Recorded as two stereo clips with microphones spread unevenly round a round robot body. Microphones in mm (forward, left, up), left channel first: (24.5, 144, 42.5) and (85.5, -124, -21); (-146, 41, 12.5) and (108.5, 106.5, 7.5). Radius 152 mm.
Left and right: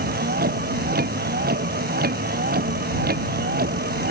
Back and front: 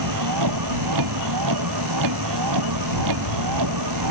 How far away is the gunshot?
No gunshot in this recording.